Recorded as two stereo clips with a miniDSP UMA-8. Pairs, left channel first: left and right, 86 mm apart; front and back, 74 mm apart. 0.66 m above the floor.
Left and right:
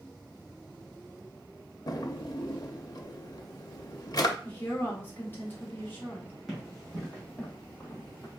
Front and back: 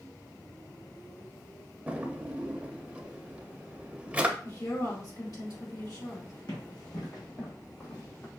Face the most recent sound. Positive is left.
turn(degrees=50)